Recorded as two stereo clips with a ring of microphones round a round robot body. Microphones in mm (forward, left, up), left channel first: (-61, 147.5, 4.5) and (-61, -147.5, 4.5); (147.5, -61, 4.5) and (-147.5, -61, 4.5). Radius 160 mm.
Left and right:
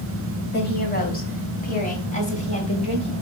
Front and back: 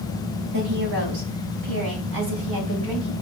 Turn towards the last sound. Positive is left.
turn(degrees=160)